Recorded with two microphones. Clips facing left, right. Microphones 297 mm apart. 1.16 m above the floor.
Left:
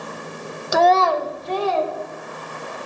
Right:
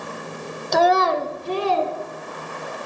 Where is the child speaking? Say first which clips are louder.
Left 1 dB; 5° left (ahead or behind), 0.6 m; by 1.9 s 40° right (ahead or behind), 2 m.